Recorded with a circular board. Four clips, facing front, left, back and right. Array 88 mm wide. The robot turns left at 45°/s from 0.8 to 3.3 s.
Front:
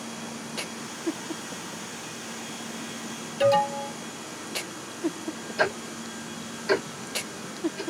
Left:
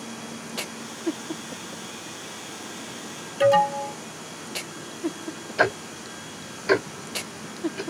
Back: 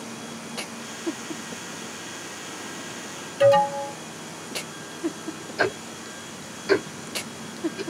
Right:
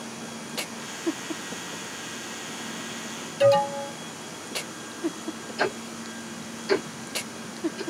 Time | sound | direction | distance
3.4 | an alarm | 120° left | 2.5 m
5.6 | ticking | 95° left | 1.8 m